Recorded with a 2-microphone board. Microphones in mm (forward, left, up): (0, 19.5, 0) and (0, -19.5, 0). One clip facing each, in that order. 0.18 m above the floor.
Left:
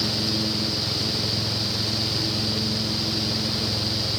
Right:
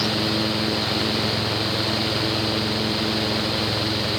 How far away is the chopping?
No chopping in this recording.